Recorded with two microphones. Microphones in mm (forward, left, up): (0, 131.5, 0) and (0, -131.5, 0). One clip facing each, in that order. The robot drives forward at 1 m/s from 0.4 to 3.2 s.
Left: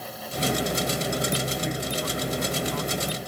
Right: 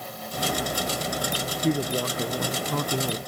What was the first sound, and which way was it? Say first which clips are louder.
A woman speaking: right 5 dB; 40° right (ahead or behind).